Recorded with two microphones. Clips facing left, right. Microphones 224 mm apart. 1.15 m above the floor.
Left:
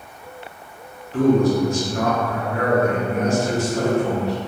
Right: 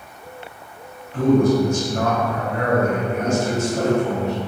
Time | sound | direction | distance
1.1 | a man speaking | 70° left (ahead or behind) | 1.1 m
3.1 | a man speaking | 35° left (ahead or behind) | 0.8 m